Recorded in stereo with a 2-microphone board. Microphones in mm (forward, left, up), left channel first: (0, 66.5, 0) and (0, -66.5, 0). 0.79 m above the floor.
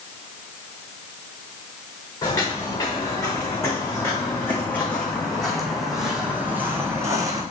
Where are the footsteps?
30° left (ahead or behind), 3.5 m; by 7.4 s 25° right (ahead or behind), 1.9 m.